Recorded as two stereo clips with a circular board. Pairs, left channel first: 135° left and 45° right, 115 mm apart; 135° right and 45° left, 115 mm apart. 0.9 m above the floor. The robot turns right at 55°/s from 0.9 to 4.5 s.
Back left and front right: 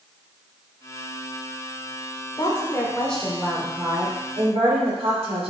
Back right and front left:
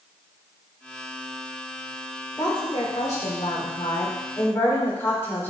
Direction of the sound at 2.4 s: 175° left.